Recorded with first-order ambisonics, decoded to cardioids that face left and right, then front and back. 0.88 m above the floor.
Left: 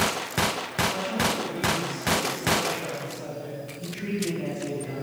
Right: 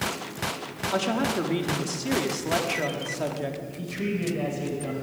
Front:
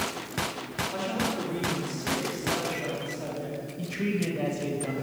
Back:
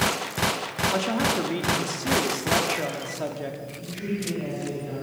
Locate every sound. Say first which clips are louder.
0.9 s a woman speaking: right 1 dB, back 5 dB; 125° right, 2.5 m
3.8 s a man speaking: right 1 dB, front 3 dB; 45° right, 4.5 m